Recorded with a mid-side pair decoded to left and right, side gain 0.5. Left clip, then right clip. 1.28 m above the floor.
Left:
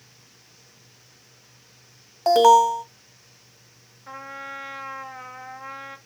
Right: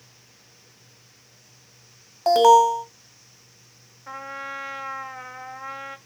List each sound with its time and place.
2.3 s an alarm: 5° left, 1.7 m
4.1 s a trumpet: 15° right, 1.1 m